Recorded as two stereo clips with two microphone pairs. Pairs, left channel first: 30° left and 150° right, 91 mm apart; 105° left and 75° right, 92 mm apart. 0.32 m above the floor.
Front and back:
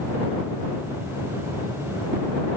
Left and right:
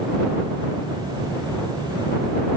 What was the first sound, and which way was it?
Only background noise.